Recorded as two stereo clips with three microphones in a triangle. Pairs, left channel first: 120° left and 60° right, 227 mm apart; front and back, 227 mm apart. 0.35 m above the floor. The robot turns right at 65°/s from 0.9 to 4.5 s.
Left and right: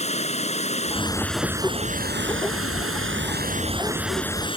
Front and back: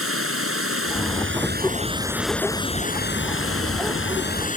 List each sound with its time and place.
0.0 s running water: straight behind; by 4.6 s 55° left